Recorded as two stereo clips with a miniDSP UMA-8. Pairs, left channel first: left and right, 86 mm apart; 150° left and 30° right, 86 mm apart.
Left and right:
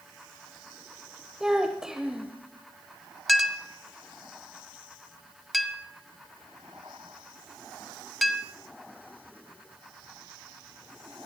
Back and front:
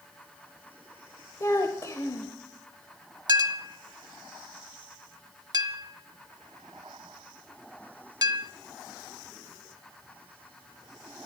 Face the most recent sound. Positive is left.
turn(degrees=0)